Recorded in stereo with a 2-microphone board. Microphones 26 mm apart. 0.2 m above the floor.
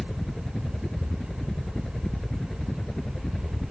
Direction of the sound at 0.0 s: 35° left (ahead or behind).